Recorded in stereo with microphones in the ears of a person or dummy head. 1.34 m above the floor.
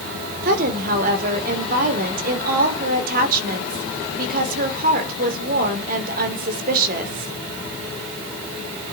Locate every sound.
0.4 s a woman speaking: 50° right (ahead or behind), 3.5 m